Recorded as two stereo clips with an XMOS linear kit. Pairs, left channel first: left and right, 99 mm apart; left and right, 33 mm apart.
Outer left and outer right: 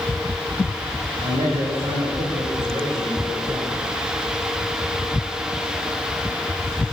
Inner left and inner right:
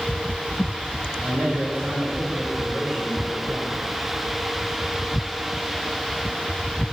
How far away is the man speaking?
About 9 m.